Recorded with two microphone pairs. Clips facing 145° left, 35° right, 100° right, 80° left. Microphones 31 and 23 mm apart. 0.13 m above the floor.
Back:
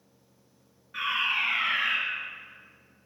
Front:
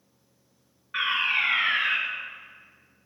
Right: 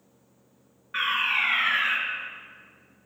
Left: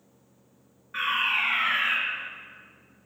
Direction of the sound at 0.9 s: 50° right.